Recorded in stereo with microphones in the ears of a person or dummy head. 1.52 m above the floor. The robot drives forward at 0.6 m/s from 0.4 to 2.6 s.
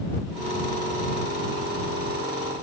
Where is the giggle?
I don't hear a giggle.